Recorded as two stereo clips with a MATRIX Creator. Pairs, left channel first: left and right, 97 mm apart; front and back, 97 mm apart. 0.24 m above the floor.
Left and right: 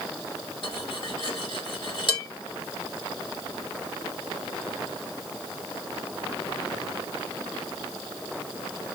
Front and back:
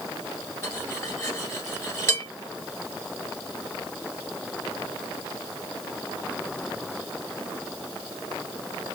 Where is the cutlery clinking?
60° left, 2.5 m.